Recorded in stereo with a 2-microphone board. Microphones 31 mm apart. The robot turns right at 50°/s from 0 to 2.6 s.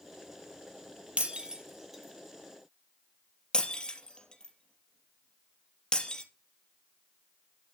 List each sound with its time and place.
1.2 s breaking glass: 40° right (ahead or behind), 3 m; by 6.2 s 30° left (ahead or behind), 3 m